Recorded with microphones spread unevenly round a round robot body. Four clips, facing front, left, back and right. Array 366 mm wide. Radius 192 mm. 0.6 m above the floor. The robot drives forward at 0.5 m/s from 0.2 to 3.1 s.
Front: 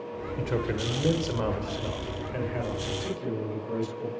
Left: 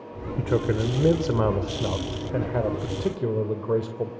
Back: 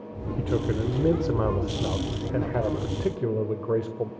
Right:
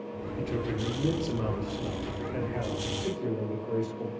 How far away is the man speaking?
About 2 m.